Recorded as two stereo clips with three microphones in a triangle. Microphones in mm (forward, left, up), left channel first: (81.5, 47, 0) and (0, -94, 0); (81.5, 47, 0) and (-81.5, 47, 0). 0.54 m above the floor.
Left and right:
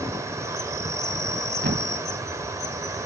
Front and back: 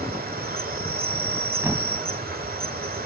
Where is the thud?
105° right, 0.9 m.